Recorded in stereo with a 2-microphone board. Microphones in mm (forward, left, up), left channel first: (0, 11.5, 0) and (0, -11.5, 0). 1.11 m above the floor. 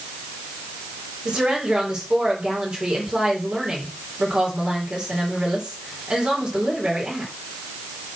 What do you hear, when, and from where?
1.2 s a woman speaking: 45° right (ahead or behind), 4.5 m